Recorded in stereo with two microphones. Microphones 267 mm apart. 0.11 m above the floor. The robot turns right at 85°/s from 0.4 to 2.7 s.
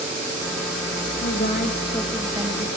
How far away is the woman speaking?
About 1.9 m.